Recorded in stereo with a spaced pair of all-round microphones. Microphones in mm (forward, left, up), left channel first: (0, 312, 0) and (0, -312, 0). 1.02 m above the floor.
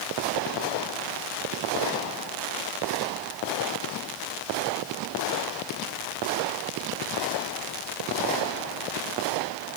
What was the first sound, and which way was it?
Only background noise.